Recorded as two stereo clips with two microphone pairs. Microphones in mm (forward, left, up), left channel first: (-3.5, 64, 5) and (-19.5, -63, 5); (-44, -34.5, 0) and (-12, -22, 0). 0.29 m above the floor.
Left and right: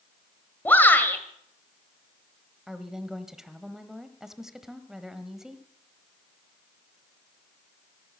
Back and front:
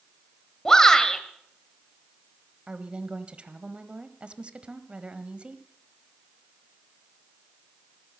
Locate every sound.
0.7 s a shout: 145° left, 1.7 m
2.7 s a woman speaking: 15° right, 1.3 m